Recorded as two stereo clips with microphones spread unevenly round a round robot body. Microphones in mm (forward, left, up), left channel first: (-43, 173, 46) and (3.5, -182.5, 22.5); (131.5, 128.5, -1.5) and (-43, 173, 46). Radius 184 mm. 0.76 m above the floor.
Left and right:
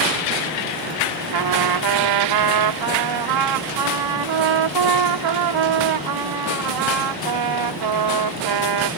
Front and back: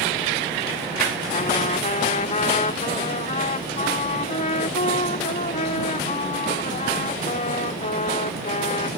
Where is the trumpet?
70° right.